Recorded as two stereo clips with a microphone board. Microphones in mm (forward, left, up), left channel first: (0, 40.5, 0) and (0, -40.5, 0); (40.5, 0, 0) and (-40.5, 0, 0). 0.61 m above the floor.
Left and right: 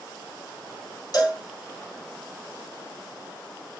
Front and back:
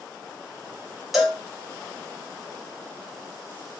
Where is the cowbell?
95° left, 1.1 m.